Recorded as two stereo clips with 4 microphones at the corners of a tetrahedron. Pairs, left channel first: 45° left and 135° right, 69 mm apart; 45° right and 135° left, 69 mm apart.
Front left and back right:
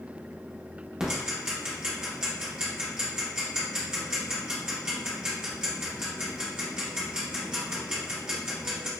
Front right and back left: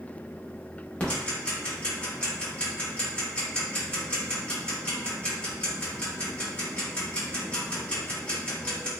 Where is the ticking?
75° right, 0.7 m.